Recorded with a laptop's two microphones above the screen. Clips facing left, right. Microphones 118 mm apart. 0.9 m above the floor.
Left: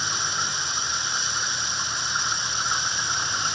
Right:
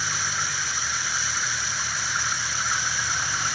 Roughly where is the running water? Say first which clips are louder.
Left 1 dB; left.